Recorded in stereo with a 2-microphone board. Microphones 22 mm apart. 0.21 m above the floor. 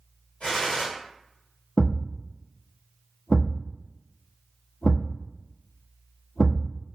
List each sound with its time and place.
0.4 s a gunshot: 75° left (ahead or behind), 1.5 m
1.8 s a thud: 60° left (ahead or behind), 1.0 m